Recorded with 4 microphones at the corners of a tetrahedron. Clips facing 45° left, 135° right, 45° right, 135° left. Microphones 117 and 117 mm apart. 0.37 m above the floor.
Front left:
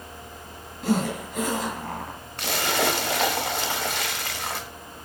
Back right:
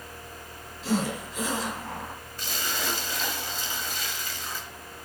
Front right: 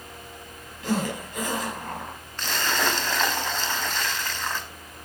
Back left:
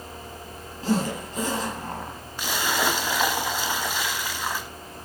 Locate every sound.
0.8 s a zipper: 75° left, 5 m
2.4 s a splash: 55° left, 0.9 m